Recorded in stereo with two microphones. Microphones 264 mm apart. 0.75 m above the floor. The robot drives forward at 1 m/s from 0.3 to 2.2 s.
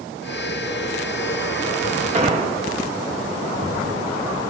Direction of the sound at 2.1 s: 30° right (ahead or behind).